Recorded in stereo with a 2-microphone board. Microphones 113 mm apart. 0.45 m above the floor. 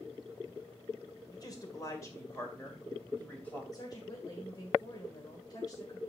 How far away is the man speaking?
About 1.8 m.